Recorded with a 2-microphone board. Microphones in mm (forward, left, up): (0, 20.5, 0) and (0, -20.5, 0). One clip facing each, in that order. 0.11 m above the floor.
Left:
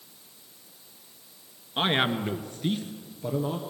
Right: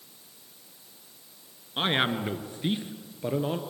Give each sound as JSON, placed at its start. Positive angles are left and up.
{"t": 1.8, "sound": "a man speaking", "side_deg": 5, "distance_m": 1.6}